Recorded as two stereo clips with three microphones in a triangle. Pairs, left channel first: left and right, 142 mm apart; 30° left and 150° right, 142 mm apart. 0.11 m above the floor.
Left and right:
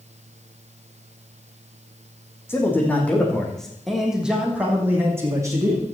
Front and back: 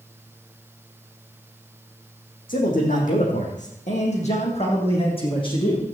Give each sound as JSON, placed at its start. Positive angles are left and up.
{"t": 2.5, "sound": "a man speaking", "azimuth_deg": 15, "distance_m": 5.0}